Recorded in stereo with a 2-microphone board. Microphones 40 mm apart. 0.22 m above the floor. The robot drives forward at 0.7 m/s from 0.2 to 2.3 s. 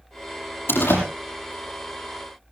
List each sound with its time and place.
0.7 s a door slam: 70° left (ahead or behind), 6 m